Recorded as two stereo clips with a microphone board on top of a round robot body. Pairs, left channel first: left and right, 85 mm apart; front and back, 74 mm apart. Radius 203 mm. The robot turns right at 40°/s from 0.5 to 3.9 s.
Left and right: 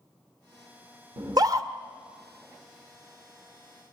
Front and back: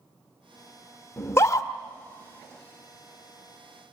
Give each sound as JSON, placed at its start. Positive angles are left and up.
{"t": 1.2, "sound": "a scream", "azimuth_deg": -60, "distance_m": 1.8}